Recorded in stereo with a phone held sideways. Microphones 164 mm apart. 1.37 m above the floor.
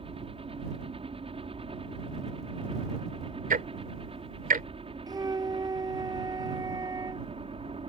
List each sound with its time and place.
0.0 s a helicopter: 35° right (ahead or behind)
3.5 s ticking: 60° right (ahead or behind)
5.1 s a flute: 20° right (ahead or behind)